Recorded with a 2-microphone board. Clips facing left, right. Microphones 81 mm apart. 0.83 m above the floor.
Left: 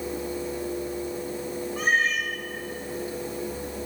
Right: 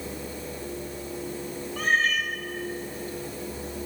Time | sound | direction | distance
1.8 | a cat meowing | 20° left (ahead or behind) | 1.3 m